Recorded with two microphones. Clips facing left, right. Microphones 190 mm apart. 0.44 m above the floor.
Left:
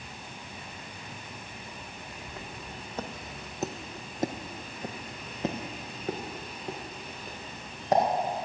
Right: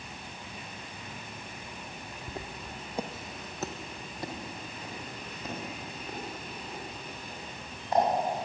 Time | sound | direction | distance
2.3 | footsteps | 35° right (ahead or behind) | 1.5 m